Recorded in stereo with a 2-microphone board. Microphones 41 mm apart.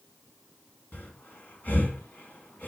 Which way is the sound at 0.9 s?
50° left (ahead or behind).